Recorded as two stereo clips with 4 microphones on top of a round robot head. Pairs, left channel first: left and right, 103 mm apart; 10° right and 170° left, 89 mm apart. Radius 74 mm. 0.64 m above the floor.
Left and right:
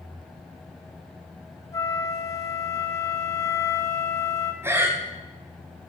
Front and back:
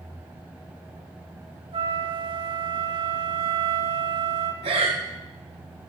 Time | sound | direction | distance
1.7 | a flute | 145° left | 3 m
4.6 | breathing | 155° right | 3 m